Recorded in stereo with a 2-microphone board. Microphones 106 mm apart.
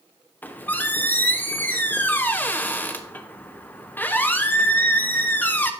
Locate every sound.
0.4 s a squeak: 20° left (ahead or behind), 0.5 m